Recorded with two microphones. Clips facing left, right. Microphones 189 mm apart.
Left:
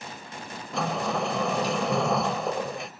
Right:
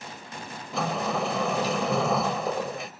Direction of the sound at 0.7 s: Centre (ahead or behind).